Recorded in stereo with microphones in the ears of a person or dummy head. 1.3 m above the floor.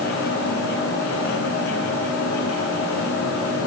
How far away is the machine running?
About 9.5 m.